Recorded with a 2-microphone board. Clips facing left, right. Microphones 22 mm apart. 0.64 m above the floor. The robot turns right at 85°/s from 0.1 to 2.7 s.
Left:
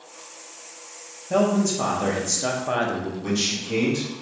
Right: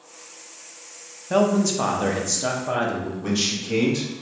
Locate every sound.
1.3 s a man speaking: 85° right, 0.6 m; by 3.1 s 35° left, 0.6 m
3.2 s a man speaking: 15° right (ahead or behind), 1.0 m